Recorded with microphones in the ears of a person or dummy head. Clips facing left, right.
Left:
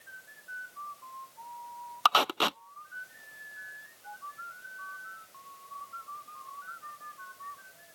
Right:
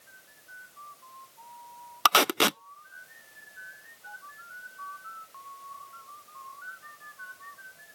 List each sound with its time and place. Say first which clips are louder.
2.0 s tape being pulled: right 4 dB; 30° right (ahead or behind)